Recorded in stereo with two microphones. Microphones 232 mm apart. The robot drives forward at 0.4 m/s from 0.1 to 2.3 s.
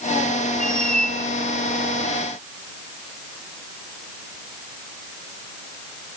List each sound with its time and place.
0.6 s a squeak: 5° left (ahead or behind), 1.1 m